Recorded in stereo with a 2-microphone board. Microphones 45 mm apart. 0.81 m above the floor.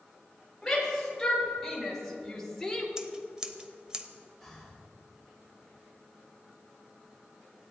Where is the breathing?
5° left (ahead or behind), 3 m.